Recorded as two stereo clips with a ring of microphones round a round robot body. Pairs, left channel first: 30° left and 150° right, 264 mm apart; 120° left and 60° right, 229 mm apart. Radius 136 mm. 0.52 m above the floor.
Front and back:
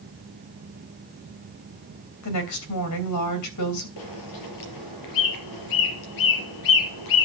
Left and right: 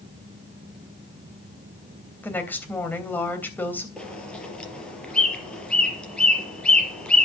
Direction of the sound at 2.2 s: 40° left.